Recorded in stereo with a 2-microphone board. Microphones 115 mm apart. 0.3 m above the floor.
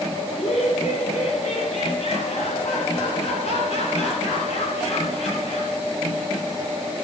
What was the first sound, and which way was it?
Laughter, 75° left (ahead or behind).